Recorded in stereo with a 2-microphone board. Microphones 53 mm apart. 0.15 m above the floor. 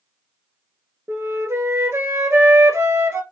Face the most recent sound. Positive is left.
turn(degrees=-65)  # may be behind; listen again after turning